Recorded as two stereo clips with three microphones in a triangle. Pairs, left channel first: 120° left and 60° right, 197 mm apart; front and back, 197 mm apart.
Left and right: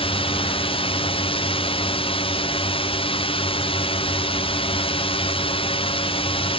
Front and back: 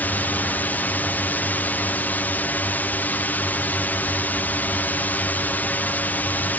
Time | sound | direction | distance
0.0 | a drone | 75° left | ?